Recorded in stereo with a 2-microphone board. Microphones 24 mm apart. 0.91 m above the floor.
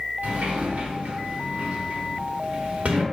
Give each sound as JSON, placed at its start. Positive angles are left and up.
{"t": 0.2, "sound": "a sliding door", "side_deg": -75, "distance_m": 0.9}